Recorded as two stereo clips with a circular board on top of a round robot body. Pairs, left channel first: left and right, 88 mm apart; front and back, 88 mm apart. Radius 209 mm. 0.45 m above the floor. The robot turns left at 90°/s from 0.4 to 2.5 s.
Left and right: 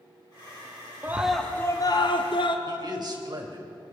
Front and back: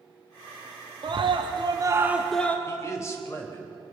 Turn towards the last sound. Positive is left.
turn(degrees=-55)